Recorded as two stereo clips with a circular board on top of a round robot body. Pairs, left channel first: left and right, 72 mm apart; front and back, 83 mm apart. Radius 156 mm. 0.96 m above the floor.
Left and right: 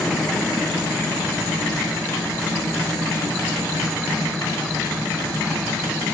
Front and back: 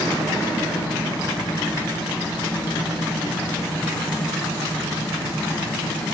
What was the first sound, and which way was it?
Only background noise.